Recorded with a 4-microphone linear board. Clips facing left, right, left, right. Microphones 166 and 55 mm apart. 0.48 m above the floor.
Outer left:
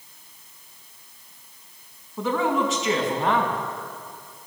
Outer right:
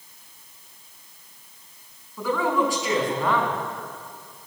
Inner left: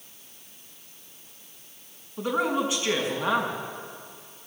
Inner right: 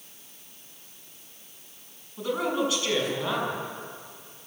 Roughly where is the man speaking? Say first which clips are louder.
Even, inner left 1 dB; left.